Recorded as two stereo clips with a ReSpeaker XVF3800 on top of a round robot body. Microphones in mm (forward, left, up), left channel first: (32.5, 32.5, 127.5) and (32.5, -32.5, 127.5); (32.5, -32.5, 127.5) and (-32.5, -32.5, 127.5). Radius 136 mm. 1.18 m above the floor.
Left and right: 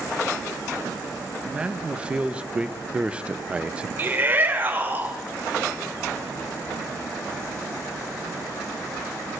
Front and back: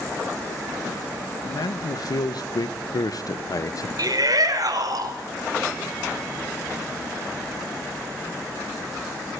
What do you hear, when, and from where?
1.4 s a man speaking: 15° right, 2 m; by 3.9 s 20° right, 1.0 m
4.0 s a shout: 155° right, 6 m